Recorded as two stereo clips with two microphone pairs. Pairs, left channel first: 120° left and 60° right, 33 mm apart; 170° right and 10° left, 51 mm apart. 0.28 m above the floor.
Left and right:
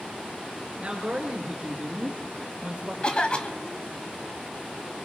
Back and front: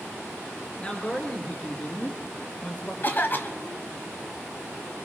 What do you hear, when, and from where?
0.8 s a man speaking: 105° right, 4.5 m; by 2.9 s 110° right, 3.5 m
3.0 s a cough: 165° left, 1.3 m